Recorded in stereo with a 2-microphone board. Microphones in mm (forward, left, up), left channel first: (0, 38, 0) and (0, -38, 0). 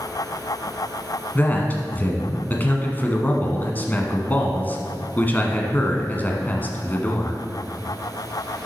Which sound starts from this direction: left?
A man speaking, at 1.4 s.